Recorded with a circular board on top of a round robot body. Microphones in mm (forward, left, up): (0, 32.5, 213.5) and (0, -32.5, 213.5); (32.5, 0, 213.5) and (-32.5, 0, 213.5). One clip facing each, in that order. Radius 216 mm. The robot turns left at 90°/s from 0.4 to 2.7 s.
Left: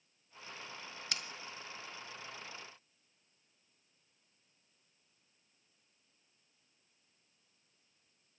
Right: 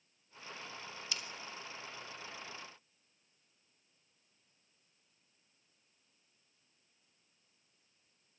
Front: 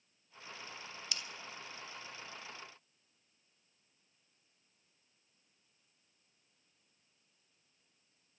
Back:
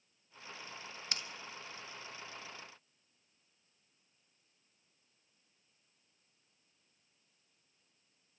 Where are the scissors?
130° left, 1.7 m; by 1.2 s 120° left, 1.7 m.